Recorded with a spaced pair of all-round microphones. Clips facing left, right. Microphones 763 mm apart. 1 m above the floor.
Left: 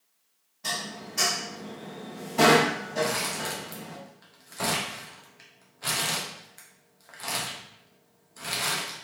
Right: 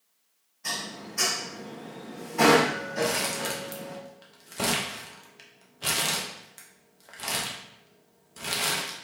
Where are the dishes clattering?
65° left (ahead or behind), 0.9 m.